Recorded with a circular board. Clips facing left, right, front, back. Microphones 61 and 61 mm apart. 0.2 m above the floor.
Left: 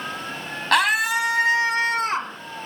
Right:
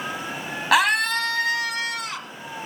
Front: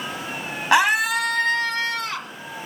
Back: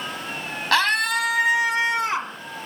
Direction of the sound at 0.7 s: 15° right.